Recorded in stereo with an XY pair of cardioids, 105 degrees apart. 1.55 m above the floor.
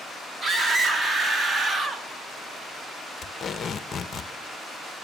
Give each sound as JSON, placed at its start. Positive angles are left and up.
{"t": 0.4, "sound": "a scream", "azimuth_deg": -30, "distance_m": 4.0}
{"t": 3.2, "sound": "tape being pulled", "azimuth_deg": 45, "distance_m": 1.3}